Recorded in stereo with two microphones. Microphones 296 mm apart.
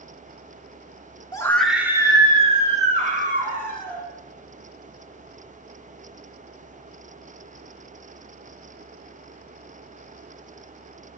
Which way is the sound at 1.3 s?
15° left (ahead or behind).